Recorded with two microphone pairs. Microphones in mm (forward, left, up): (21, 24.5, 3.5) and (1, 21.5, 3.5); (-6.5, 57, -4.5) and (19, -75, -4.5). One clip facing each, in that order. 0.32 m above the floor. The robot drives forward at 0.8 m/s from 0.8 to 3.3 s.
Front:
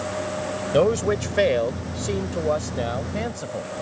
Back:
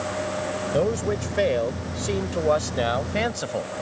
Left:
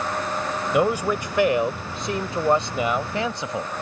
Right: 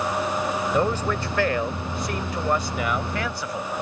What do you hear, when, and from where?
0.7 s a man speaking: 30° left; by 3.7 s 160° left